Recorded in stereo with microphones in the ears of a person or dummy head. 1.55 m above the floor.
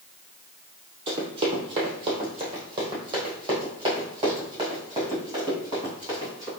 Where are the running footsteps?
35° right (ahead or behind), 2.5 m; by 6.5 s 25° right (ahead or behind), 6 m.